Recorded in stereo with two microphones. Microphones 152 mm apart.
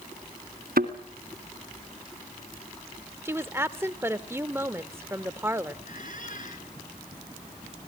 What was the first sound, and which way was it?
A thud, 80° right.